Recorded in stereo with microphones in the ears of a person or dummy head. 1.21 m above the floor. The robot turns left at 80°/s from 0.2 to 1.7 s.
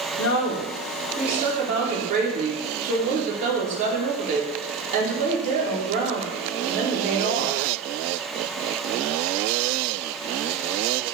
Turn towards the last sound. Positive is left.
turn(degrees=-40)